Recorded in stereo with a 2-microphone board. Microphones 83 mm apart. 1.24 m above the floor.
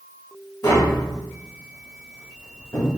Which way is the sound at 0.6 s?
40° left (ahead or behind).